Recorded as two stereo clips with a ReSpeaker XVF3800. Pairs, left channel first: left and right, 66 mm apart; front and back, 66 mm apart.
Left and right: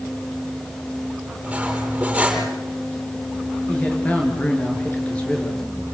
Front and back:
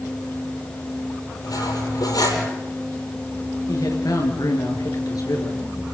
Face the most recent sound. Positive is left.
turn(degrees=20)